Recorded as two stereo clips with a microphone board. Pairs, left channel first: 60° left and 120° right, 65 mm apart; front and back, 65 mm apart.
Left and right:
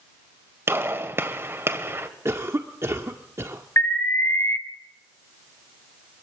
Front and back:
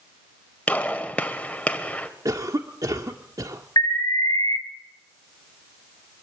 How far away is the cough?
About 1.6 m.